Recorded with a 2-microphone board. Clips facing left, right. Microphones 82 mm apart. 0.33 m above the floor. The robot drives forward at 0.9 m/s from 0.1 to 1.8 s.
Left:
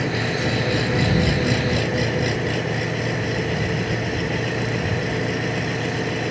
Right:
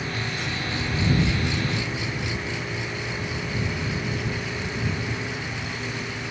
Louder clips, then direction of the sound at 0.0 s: Left 7 dB; 80° left.